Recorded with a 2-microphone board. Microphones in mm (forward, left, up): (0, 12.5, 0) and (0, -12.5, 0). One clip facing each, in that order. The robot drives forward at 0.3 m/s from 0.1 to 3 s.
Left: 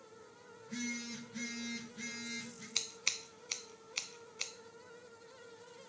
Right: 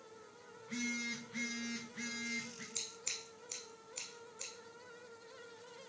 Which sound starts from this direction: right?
A phone buzzing, at 0.6 s.